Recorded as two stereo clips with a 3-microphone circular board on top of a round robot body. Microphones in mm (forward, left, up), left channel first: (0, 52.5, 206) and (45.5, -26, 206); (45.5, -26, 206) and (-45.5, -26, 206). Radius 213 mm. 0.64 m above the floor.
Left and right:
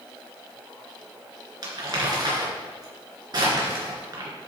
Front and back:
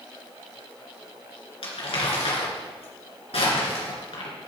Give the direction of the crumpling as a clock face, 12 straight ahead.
12 o'clock.